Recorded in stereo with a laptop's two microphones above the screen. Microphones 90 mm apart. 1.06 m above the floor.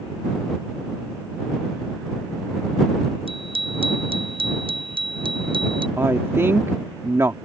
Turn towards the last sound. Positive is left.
turn(degrees=-30)  # may be behind; listen again after turning